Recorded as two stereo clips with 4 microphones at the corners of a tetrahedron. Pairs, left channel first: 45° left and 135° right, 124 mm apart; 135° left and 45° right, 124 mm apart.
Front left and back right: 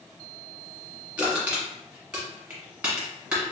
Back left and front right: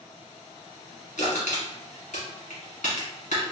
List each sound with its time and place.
1.2 s crushing: 145° left, 1.8 m